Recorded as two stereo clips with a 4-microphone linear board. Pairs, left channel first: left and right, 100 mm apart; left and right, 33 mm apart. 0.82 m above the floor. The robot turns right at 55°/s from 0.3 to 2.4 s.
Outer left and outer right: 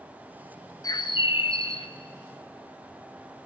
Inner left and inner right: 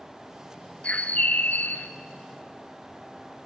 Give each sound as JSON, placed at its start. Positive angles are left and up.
{"t": 0.8, "sound": "a bird", "azimuth_deg": 40, "distance_m": 0.7}